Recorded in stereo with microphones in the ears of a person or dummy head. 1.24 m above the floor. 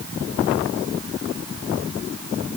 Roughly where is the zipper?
I don't hear a zipper.